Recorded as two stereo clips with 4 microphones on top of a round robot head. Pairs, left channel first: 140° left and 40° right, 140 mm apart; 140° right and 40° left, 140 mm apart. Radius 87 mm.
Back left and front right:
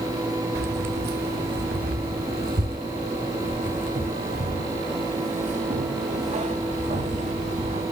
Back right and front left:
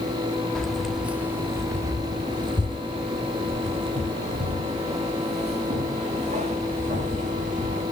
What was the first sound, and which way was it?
Keys jangling, 55° right.